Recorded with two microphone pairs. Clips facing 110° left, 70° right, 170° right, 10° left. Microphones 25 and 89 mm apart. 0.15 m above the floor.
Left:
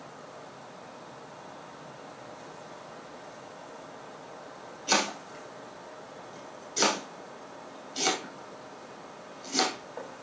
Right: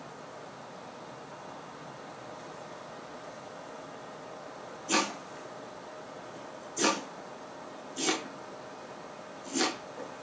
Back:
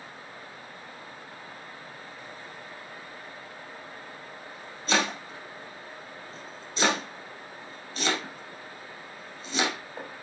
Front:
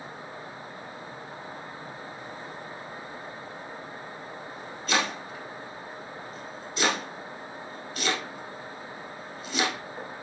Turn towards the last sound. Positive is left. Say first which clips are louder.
# left 2 dB, back 1 dB
turn(degrees=130)